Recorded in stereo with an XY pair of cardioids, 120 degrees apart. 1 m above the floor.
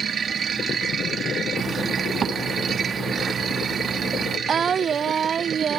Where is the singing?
40° right.